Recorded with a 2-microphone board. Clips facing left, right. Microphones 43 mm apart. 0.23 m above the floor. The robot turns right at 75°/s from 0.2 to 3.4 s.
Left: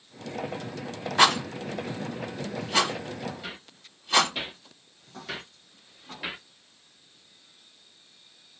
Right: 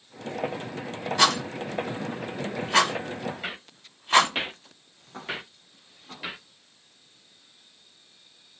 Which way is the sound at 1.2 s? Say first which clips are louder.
Left 2 dB; 30° left (ahead or behind).